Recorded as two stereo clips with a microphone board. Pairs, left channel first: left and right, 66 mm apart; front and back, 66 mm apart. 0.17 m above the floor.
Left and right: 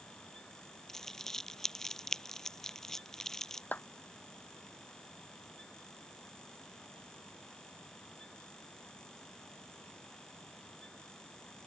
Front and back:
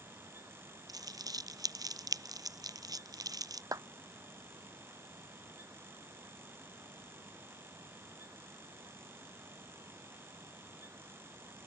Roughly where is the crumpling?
Behind.